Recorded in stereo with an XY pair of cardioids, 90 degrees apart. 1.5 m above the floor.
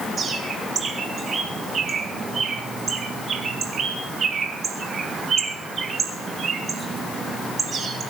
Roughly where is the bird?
Ahead right.